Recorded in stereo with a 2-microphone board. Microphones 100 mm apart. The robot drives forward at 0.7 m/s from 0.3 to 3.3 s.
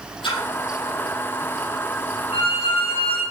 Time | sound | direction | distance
0.2 | a splash | 55° left (ahead or behind) | 5.5 m
2.3 | a violin | 70° left (ahead or behind) | 7.5 m